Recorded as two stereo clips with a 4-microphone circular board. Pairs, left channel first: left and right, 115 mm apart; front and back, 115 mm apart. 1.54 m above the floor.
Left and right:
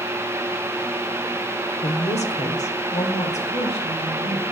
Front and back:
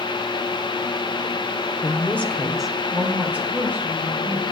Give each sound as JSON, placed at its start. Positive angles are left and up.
{"t": 1.8, "sound": "a woman speaking", "azimuth_deg": 65, "distance_m": 1.0}